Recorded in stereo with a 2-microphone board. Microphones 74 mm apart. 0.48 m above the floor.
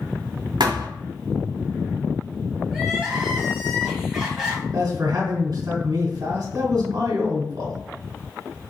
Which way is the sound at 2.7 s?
5° right (ahead or behind).